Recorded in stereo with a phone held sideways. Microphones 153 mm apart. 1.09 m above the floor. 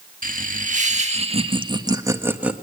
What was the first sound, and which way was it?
Laughter, 60° right (ahead or behind).